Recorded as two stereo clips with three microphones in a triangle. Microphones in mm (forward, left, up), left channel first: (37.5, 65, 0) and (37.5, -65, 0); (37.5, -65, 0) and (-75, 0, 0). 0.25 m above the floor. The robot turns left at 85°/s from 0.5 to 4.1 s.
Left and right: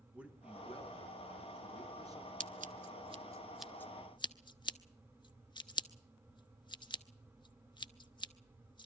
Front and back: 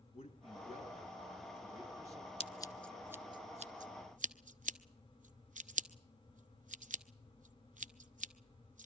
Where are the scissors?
75° right, 0.7 m; by 8.9 s 140° left, 0.7 m.